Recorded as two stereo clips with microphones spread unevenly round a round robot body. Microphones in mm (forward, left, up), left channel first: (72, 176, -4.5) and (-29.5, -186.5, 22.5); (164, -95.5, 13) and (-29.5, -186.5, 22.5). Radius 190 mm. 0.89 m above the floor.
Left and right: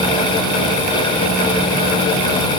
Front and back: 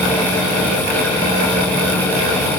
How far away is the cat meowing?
No cat meowing in this recording.